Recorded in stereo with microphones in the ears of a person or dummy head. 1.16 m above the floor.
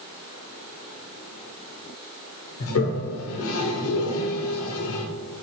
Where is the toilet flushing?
75° left (ahead or behind), 0.7 m.